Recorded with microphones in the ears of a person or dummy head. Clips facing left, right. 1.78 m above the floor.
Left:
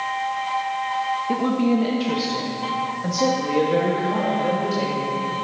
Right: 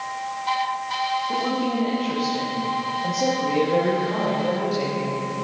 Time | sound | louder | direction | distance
1.3 | a woman speaking | left 7 dB | 45° left (ahead or behind) | 1.6 m